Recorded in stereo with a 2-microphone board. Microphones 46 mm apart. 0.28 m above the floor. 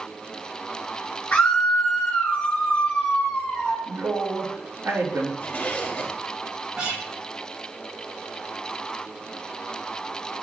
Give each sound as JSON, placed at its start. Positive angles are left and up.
{"t": 1.3, "sound": "a scream", "side_deg": 30, "distance_m": 4.0}
{"t": 3.8, "sound": "a man speaking", "side_deg": -70, "distance_m": 3.5}
{"t": 5.4, "sound": "a zipper", "side_deg": 35, "distance_m": 1.9}
{"t": 6.8, "sound": "a guitar", "side_deg": -15, "distance_m": 4.5}